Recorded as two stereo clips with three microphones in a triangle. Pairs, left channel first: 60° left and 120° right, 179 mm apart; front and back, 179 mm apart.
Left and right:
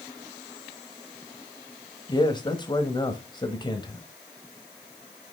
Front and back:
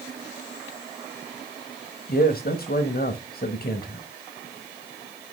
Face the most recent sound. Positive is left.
turn(degrees=0)